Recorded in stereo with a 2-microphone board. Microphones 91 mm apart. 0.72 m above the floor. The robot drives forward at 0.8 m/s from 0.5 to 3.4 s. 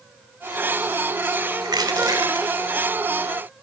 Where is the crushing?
50° right (ahead or behind), 1.8 m; by 2.5 s 40° right (ahead or behind), 2 m.